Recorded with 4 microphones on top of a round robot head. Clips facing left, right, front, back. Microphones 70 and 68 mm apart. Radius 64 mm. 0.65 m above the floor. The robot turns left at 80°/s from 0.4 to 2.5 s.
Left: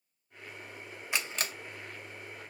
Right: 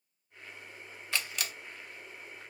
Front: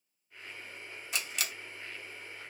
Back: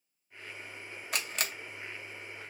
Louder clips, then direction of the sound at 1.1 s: Left 1 dB, back 2 dB; 160° left.